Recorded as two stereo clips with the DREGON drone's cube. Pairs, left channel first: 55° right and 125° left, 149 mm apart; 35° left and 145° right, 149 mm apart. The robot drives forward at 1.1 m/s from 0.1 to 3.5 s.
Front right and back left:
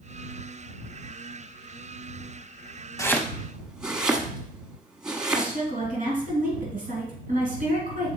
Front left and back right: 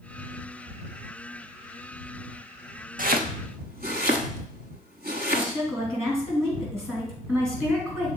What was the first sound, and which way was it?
Chopping, 125° right.